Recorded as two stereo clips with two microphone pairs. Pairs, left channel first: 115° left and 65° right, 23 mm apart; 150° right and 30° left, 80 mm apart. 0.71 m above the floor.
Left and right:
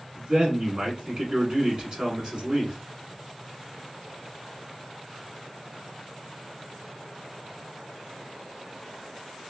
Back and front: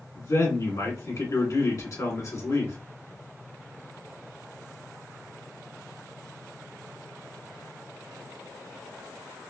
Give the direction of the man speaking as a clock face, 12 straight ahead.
4 o'clock.